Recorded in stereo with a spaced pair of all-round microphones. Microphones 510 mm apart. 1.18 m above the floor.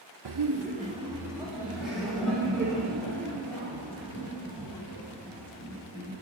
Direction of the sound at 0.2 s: 50° right (ahead or behind).